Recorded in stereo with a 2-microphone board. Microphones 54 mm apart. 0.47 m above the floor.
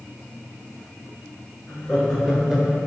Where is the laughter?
15° left (ahead or behind), 2.5 m; by 2.8 s 25° right (ahead or behind), 1.6 m.